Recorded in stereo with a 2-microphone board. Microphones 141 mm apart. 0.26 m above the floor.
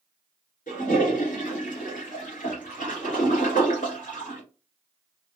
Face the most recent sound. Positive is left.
turn(degrees=70)  # may be behind; listen again after turning